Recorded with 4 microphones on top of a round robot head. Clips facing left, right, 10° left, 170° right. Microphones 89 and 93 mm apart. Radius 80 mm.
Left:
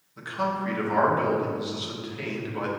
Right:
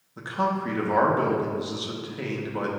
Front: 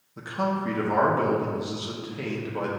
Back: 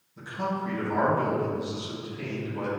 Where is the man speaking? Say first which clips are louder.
Right 2 dB, front 3 dB; 30° right, 1.4 m.